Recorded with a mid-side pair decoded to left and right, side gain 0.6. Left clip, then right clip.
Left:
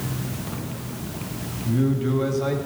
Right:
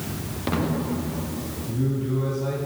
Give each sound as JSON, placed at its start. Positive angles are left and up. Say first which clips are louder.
{"t": 1.6, "sound": "a man speaking", "louder": "left 5 dB", "azimuth_deg": 50, "distance_m": 2.0}